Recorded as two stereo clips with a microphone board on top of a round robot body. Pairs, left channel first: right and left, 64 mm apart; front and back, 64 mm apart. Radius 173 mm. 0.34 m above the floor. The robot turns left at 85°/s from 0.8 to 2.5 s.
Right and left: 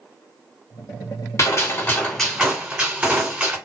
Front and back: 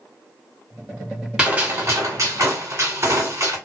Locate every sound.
1.4 s a gunshot: 105° right, 2 m; by 3.5 s 160° left, 2 m